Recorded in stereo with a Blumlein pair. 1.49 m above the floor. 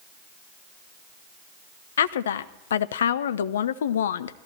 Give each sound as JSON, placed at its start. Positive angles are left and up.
{"t": 2.0, "sound": "a woman speaking", "azimuth_deg": 65, "distance_m": 0.7}